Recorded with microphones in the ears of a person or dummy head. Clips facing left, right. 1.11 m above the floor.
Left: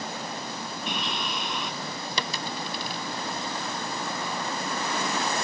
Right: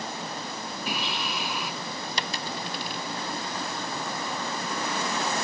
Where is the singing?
Centre (ahead or behind).